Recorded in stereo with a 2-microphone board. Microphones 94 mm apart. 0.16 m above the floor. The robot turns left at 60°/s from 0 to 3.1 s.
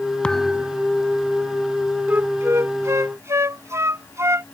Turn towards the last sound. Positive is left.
turn(degrees=-105)